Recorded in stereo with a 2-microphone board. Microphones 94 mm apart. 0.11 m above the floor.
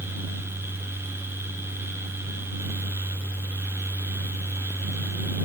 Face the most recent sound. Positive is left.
No sound to turn to.